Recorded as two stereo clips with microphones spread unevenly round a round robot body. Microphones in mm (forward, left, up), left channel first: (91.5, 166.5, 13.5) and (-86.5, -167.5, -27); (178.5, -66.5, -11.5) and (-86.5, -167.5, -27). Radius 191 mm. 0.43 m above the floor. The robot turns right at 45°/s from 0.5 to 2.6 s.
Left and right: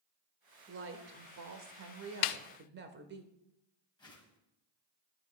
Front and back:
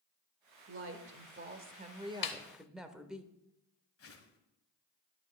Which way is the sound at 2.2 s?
60° left.